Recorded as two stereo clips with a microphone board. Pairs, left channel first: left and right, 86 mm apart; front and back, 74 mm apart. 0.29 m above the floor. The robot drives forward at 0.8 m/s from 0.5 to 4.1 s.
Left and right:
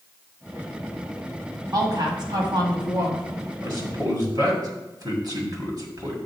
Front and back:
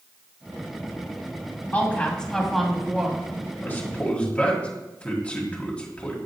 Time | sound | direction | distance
1.7 | a woman speaking | 60° right | 1.8 m
3.6 | a man speaking | 55° right | 1.8 m